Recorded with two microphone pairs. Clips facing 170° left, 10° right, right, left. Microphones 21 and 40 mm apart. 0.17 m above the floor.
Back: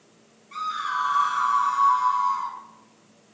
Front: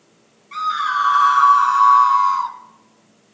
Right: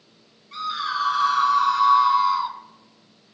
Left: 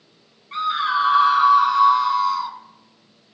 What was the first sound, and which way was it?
A scream, 40° left.